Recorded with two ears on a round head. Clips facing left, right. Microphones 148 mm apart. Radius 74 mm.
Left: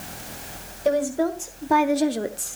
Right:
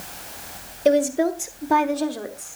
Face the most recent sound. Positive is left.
turn(degrees=45)  # may be behind; listen again after turning